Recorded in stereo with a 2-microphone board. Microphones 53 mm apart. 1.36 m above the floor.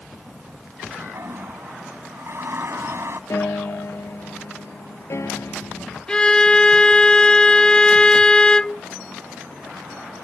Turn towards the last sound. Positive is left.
turn(degrees=20)  # may be behind; listen again after turning